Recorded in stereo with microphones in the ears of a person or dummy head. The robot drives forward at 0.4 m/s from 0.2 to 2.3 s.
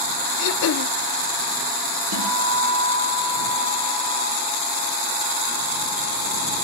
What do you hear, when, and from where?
0.4 s throat clearing: 55° left (ahead or behind), 0.5 m; by 0.9 s 50° left (ahead or behind), 0.6 m
2.1 s a guitar: 70° right (ahead or behind), 6.5 m